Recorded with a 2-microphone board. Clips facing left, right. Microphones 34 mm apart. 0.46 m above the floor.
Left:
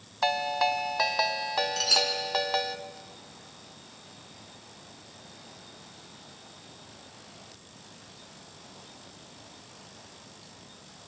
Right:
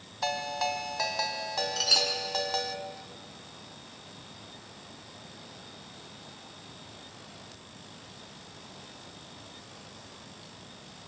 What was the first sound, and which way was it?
A ringtone, 30° left (ahead or behind).